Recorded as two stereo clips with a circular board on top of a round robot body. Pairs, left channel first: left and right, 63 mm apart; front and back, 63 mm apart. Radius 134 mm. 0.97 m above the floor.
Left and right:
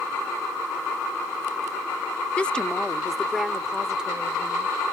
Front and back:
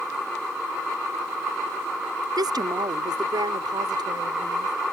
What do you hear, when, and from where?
2.4 s a woman speaking: 165° left; by 4.7 s 165° right